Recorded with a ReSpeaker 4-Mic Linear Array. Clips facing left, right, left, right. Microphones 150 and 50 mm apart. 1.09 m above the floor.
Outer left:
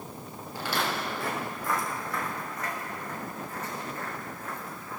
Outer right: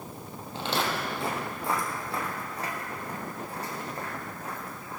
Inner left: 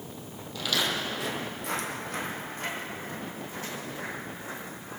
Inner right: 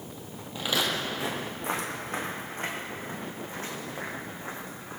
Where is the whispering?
No whispering in this recording.